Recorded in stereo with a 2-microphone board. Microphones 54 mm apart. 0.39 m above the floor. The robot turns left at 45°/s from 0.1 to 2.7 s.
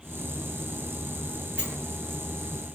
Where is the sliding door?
5° right (ahead or behind), 3 m; by 1.8 s centre (ahead or behind), 3 m.